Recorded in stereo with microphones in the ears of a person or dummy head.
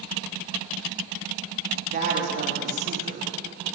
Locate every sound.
1.9 s a woman speaking: 40° right (ahead or behind), 2.5 m